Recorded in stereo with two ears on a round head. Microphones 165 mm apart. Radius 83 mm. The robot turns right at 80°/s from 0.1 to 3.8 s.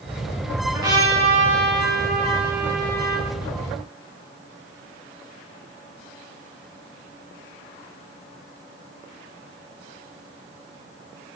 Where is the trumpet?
165° right, 1.5 m; by 3.3 s 40° left, 1.5 m.